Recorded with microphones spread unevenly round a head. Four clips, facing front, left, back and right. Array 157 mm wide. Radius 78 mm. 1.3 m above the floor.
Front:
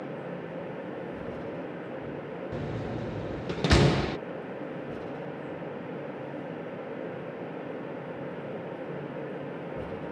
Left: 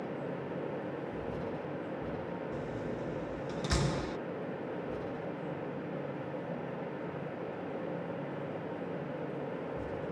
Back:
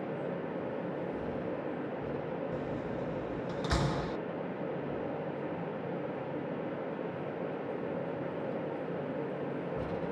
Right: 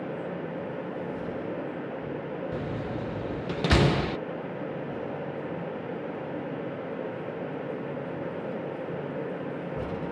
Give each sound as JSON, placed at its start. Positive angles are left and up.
{"t": 2.5, "sound": "a door slam", "azimuth_deg": -45}